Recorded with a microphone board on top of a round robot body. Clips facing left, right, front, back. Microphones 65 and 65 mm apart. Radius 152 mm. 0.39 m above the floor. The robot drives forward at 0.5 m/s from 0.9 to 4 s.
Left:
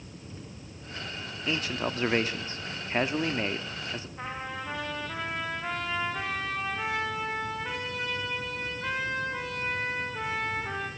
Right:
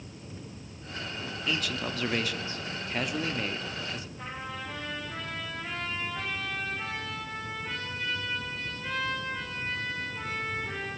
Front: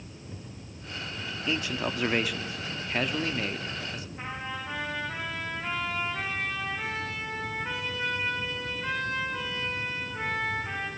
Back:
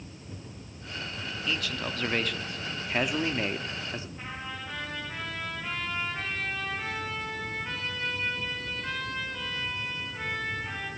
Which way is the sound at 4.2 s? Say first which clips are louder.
Left 2 dB, front 3 dB; 70° left.